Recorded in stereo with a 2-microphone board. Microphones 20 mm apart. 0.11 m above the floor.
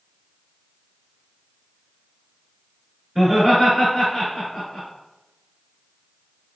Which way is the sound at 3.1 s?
15° right (ahead or behind).